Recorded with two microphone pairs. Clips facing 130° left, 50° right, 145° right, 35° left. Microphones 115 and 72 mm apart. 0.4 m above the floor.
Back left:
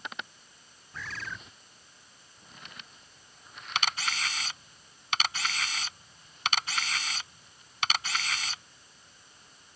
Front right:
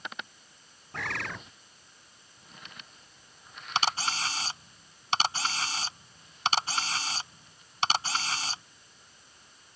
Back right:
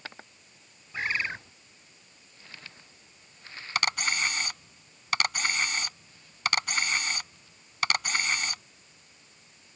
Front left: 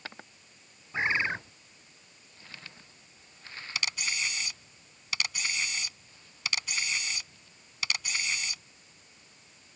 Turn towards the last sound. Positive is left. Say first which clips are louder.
# front right 3 dB, back right 7 dB
turn(degrees=-105)